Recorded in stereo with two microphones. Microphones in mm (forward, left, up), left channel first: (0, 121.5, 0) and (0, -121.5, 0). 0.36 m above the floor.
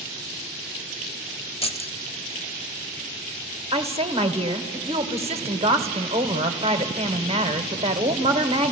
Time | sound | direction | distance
1.6 | keys jangling | 25° left (ahead or behind) | 0.8 m
3.7 | a woman speaking | 25° right (ahead or behind) | 1.0 m